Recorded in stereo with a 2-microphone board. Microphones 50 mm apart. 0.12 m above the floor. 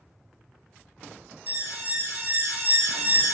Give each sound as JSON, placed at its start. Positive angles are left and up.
{"t": 1.5, "sound": "an alarm", "side_deg": -35, "distance_m": 1.0}